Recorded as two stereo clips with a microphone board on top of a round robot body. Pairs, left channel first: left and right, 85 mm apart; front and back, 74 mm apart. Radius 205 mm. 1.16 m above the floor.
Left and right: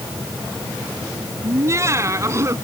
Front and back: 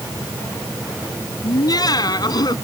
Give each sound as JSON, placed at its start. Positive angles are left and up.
{"t": 1.4, "sound": "laughter", "azimuth_deg": -35}